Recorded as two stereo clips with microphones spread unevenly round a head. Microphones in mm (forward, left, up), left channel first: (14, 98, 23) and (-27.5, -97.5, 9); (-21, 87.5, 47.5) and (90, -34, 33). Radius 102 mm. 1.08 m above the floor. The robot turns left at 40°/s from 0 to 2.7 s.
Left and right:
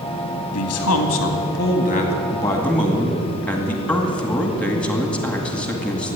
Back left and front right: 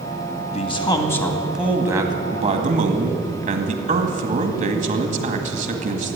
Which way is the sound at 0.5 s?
80° left.